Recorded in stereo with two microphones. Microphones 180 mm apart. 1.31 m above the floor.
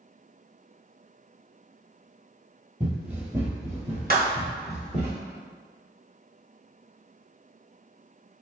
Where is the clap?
55° right (ahead or behind), 0.8 m.